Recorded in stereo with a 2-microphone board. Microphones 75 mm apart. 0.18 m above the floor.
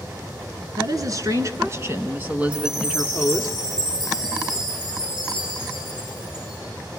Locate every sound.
0.8 s a woman speaking: 55° right (ahead or behind), 1.9 m; by 3.5 s 5° left (ahead or behind), 1.8 m
2.5 s a chime: 60° right (ahead or behind), 8.5 m